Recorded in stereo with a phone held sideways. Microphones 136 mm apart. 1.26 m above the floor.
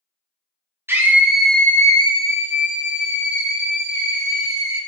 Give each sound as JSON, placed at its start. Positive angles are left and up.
{"t": 0.9, "sound": "a scream", "side_deg": -15, "distance_m": 0.9}